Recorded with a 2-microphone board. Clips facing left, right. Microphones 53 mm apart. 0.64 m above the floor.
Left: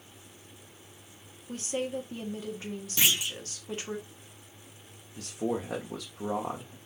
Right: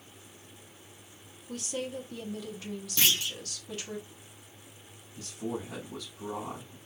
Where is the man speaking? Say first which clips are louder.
Left 4 dB; 65° left (ahead or behind), 1.2 m.